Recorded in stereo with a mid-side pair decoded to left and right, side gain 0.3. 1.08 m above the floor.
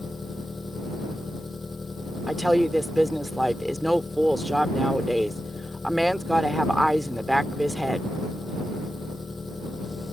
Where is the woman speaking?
5° left.